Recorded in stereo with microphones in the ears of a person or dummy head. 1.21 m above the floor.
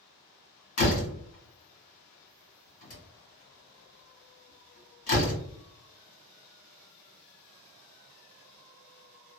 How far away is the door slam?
About 1.6 m.